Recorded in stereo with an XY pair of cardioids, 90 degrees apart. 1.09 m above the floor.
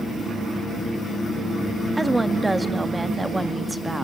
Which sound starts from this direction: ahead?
A woman speaking, at 2.0 s.